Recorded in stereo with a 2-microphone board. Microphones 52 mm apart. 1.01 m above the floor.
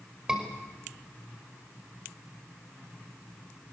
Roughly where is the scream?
Centre.